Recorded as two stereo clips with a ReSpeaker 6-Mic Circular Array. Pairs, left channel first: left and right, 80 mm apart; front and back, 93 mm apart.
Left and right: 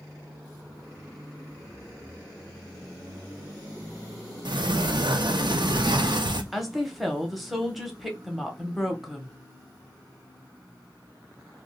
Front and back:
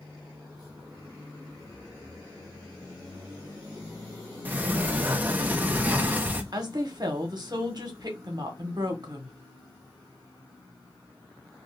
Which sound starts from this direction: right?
A sliding door, at 4.5 s.